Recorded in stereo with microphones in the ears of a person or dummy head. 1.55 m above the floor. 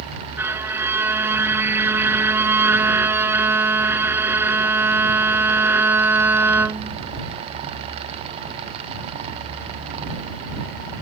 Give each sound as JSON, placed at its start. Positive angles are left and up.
{"t": 0.4, "sound": "a violin", "side_deg": -5}